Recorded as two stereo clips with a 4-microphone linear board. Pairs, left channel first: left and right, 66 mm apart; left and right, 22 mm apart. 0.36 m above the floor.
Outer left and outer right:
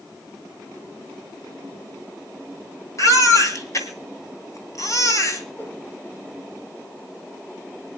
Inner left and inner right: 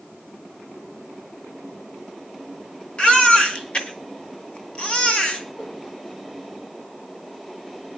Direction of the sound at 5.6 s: 35° left (ahead or behind).